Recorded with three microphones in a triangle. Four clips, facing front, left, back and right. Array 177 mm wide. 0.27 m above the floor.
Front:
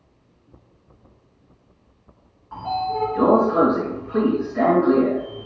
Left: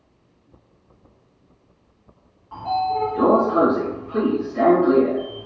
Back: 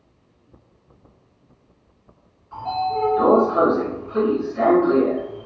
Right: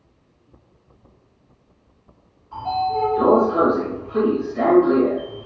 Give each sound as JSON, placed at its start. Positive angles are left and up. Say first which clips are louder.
{"t": 2.5, "sound": "a sliding door", "louder": "even, back 1 dB", "azimuth_deg": 45, "distance_m": 2.0}